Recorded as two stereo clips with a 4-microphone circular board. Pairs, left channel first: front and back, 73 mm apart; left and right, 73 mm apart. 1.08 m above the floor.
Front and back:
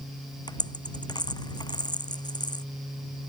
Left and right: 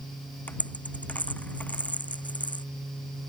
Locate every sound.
0.5 s a dropped coin: 20° left